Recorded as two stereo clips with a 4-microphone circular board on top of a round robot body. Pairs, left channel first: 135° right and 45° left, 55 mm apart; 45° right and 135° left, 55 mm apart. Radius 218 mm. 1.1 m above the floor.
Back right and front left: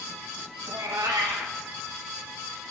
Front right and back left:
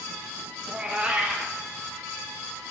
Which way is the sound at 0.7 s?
65° left.